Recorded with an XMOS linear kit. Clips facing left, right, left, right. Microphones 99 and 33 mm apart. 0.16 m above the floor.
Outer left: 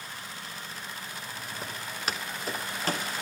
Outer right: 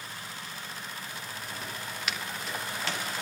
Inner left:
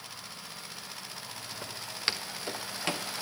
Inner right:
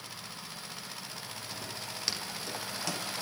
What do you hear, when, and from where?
1.6 s footsteps: 35° left (ahead or behind), 3.5 m; by 3.1 s 40° left (ahead or behind), 2.5 m